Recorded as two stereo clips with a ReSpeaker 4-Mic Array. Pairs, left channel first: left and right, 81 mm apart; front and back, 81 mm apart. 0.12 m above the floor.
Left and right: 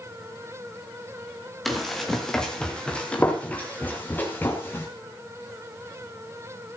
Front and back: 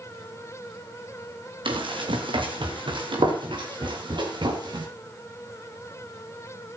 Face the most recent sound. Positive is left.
turn(degrees=155)